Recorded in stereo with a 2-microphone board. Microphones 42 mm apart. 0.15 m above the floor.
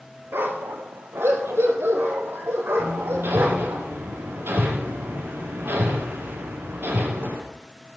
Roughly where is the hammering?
Right.